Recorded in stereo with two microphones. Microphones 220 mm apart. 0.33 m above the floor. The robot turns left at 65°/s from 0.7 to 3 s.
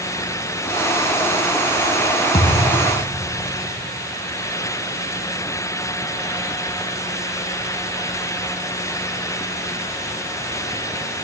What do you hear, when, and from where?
2.3 s a thud: 155° left, 3.5 m; by 2.9 s 125° left, 3.5 m